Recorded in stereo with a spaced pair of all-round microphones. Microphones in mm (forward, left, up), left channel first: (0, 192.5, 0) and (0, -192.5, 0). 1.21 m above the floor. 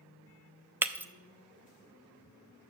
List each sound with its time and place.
0.8 s breaking glass: 5° right (ahead or behind), 0.5 m